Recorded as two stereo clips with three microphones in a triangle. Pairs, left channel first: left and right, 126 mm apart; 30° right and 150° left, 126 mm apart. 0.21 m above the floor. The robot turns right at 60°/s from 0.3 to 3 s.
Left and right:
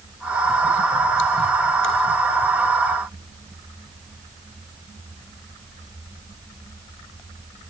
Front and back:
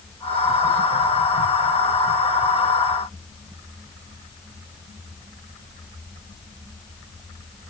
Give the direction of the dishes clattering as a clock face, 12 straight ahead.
No dishes clattering in this recording.